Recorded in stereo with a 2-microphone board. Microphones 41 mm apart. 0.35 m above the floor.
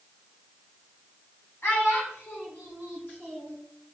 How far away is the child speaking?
About 1.9 m.